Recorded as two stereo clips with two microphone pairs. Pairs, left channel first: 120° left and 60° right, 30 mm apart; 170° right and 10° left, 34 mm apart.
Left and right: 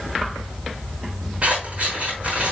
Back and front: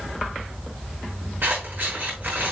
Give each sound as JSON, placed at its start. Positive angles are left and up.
{"t": 1.4, "sound": "scissors", "azimuth_deg": -10, "distance_m": 6.0}